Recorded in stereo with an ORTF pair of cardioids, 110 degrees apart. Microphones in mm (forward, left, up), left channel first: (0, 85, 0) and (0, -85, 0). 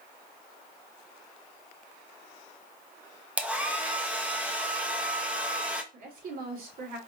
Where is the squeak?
No squeak in this recording.